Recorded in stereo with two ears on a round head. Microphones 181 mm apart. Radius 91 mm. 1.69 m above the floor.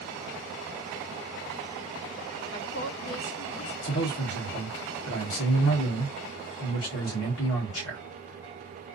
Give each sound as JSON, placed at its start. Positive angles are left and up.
{"t": 2.5, "sound": "a woman speaking", "side_deg": 70, "distance_m": 1.2}
{"t": 3.8, "sound": "a man speaking", "side_deg": 65, "distance_m": 1.3}